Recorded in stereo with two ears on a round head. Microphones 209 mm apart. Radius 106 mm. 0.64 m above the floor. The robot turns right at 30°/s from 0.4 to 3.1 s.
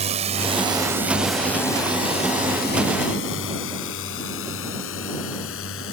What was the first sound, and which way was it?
A drone, 30° right (ahead or behind).